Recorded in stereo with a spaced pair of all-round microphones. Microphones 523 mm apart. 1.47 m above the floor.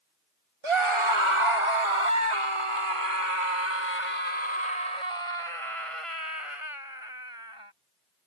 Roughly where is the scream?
Right.